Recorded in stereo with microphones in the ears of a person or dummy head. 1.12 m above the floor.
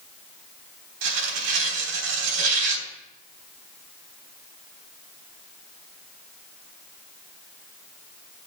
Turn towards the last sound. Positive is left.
turn(degrees=-80)